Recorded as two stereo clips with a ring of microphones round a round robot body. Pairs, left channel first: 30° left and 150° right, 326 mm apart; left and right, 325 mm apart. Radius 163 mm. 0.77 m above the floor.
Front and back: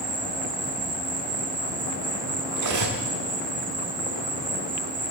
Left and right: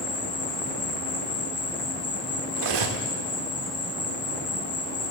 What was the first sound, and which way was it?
An insect, 150° left.